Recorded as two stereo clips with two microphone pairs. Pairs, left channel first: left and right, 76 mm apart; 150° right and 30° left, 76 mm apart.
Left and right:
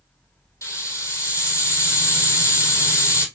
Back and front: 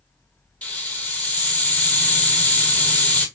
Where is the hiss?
135° left, 1.3 m.